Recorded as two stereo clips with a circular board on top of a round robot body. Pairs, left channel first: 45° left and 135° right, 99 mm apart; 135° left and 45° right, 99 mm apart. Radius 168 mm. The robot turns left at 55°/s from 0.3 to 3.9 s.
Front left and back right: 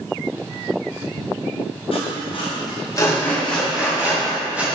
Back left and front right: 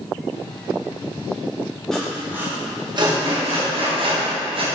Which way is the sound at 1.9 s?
50° left.